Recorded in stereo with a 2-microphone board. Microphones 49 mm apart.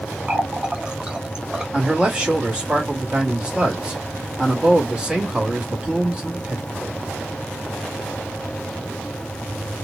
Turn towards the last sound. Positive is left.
turn(degrees=-20)  # may be behind; listen again after turning